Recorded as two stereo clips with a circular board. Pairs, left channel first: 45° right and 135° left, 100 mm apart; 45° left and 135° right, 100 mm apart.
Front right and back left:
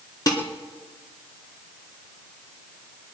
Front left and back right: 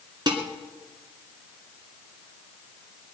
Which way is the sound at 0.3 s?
95° right.